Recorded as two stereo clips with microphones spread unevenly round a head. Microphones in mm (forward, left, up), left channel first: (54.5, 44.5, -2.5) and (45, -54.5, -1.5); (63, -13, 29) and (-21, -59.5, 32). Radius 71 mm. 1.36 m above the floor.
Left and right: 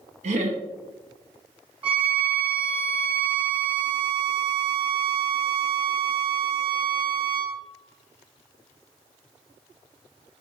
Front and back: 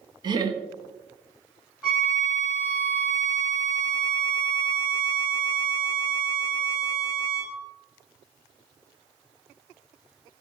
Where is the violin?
70° right, 1.2 m.